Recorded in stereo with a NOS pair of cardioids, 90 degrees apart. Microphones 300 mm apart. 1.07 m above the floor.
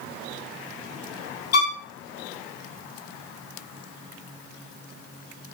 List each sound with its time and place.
1.5 s a violin: 55° left, 1.1 m